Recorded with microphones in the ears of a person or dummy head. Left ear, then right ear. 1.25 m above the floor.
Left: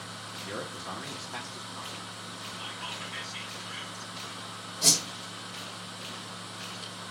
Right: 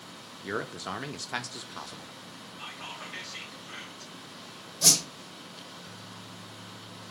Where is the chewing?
No chewing in this recording.